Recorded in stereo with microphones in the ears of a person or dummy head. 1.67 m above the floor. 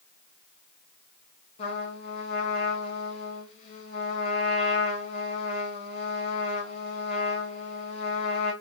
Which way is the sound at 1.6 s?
35° left (ahead or behind).